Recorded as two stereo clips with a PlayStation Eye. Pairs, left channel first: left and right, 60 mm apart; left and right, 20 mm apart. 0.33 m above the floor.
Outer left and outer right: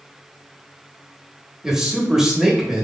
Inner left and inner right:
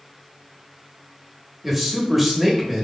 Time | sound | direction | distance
1.6 | a man speaking | 10° right (ahead or behind) | 1.1 m